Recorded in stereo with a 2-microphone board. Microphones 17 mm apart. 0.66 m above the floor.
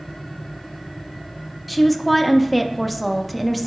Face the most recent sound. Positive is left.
turn(degrees=10)  # may be behind; listen again after turning